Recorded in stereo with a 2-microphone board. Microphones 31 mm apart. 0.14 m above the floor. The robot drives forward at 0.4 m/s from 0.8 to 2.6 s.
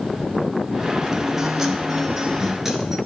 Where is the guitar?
20° right (ahead or behind), 1.0 m; by 3.0 s 15° right (ahead or behind), 1.4 m.